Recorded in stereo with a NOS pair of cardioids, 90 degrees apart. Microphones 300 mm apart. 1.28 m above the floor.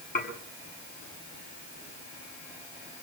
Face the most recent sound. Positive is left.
turn(degrees=30)